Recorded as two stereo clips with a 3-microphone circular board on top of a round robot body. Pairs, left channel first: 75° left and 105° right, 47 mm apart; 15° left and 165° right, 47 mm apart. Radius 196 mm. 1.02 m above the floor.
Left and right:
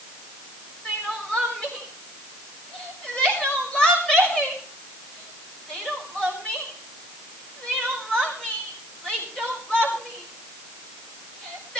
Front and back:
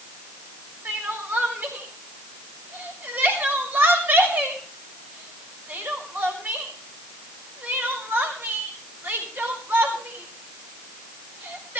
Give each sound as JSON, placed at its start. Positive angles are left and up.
{"t": 0.8, "sound": "crying", "azimuth_deg": 145, "distance_m": 6.0}